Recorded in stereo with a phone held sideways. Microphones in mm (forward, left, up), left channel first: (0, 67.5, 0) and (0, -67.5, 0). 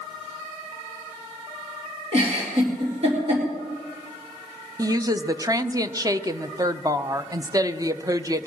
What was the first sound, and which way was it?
A giggle, 50° right (ahead or behind).